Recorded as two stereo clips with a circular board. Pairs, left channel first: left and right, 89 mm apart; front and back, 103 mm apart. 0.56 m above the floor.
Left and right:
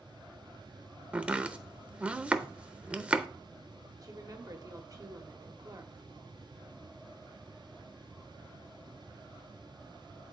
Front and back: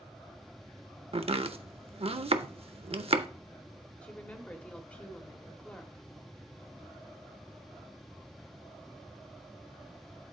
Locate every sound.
1.1 s chopping: 165° right, 0.6 m
4.0 s a woman speaking: 70° right, 1.2 m